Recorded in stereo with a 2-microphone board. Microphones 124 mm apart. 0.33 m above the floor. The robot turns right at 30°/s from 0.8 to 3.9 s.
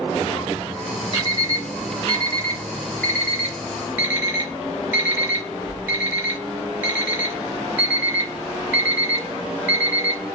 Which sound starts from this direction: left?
An alarm clock, at 1.1 s.